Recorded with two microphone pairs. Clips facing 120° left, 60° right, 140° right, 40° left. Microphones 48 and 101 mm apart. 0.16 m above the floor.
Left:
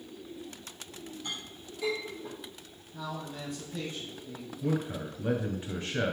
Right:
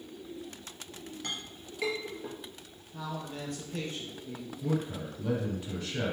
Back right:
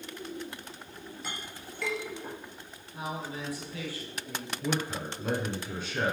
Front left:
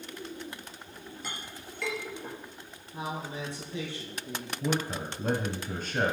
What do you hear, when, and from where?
1.2 s a clink: 50° right, 3 m
2.9 s a man speaking: 25° right, 4 m
4.6 s a man speaking: 70° left, 2 m